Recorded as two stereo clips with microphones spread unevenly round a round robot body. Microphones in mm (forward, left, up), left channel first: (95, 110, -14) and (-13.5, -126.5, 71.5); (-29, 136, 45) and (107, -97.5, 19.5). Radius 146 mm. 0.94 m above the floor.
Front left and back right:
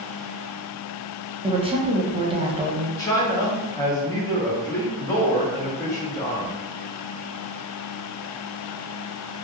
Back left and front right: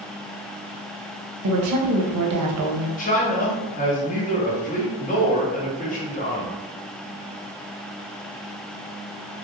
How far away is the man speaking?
About 0.7 m.